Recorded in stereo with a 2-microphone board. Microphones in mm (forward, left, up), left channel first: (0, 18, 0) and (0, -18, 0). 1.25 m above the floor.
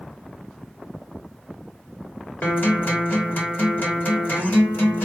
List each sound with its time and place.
2.4 s a guitar: 60° left (ahead or behind), 2 m